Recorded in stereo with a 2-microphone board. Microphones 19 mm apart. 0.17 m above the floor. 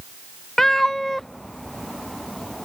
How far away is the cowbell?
I don't hear a cowbell.